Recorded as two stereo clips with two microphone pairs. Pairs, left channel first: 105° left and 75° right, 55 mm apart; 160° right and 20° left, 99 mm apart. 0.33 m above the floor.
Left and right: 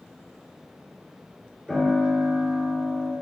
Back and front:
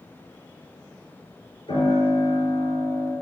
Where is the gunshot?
No gunshot in this recording.